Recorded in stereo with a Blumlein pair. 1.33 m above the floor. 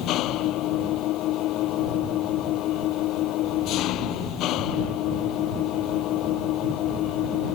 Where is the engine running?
35° left.